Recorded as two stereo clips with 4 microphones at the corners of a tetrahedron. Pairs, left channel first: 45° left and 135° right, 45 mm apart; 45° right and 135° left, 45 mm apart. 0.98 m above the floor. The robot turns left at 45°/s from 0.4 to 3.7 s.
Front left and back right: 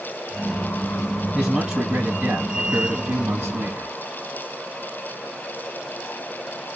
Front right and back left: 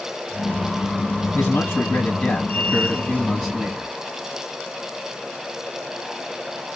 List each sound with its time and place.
1.4 s a man speaking: 50° right, 1.2 m; by 3.9 s 155° right, 1.2 m